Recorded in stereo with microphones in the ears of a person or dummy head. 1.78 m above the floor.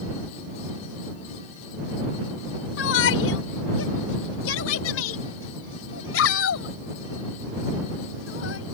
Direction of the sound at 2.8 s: 75° left (ahead or behind).